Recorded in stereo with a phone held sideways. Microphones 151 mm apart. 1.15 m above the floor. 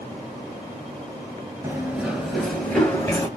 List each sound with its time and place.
1.6 s running footsteps: 15° right (ahead or behind), 1.2 m; by 3.3 s 20° left (ahead or behind), 1.5 m